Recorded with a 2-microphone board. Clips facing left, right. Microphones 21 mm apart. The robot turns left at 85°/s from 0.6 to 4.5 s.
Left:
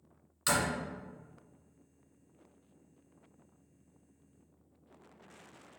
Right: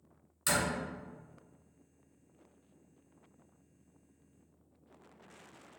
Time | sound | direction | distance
0.5 | a door slam | 20° left (ahead or behind) | 1.8 m